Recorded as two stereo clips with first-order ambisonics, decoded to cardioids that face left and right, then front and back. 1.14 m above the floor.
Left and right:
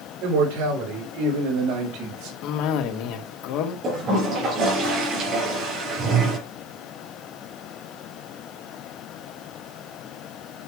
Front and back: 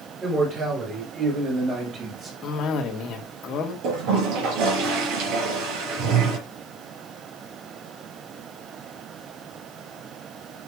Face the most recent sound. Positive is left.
turn(degrees=-150)